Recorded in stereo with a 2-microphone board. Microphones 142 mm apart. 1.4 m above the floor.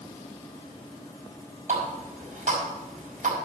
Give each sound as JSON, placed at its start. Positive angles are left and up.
{"t": 1.7, "sound": "a running tap", "side_deg": -60, "distance_m": 5.5}